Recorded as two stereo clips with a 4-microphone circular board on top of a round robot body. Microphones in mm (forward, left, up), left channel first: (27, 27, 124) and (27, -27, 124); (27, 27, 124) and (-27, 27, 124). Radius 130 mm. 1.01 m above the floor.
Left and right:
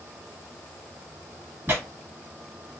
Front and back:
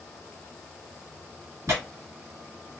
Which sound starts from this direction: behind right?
Tearing paper, at 1.7 s.